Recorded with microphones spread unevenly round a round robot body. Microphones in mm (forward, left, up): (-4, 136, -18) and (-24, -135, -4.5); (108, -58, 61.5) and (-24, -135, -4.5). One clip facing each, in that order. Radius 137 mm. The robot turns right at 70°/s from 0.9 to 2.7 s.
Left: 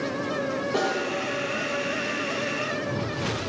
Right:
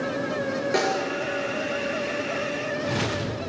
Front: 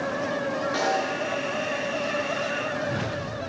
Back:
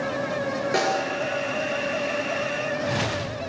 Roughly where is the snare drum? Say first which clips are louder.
Right 2 dB, back 2 dB; behind right.